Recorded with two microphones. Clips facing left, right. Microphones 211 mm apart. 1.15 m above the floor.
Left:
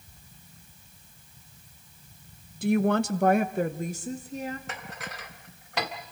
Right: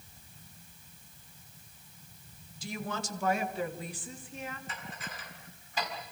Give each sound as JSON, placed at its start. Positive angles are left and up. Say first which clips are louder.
{"t": 2.6, "sound": "a woman speaking", "louder": "left 15 dB", "side_deg": 60, "distance_m": 0.9}
{"t": 4.7, "sound": "dishes clattering", "louder": "left 4 dB", "side_deg": 75, "distance_m": 1.9}